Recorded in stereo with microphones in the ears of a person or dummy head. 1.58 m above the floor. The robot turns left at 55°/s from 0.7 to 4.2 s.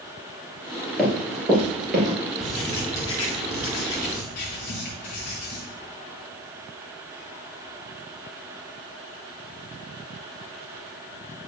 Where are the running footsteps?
5° left (ahead or behind), 1.9 m; by 2.2 s 40° right (ahead or behind), 2.0 m.